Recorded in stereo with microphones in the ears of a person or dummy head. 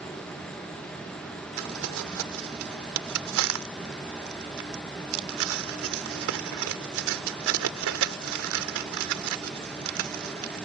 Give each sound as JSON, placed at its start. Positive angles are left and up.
{"t": 0.0, "sound": "an insect", "side_deg": 10}
{"t": 1.6, "sound": "crumpling", "side_deg": -70}